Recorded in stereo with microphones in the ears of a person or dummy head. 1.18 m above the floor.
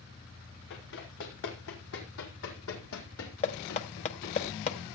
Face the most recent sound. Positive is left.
turn(degrees=35)  # may be behind; listen again after turning